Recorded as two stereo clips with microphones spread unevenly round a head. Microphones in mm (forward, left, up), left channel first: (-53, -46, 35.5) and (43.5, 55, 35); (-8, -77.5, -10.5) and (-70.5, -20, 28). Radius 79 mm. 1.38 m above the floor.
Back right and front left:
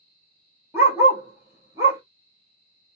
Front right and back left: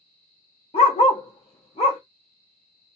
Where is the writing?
No writing in this recording.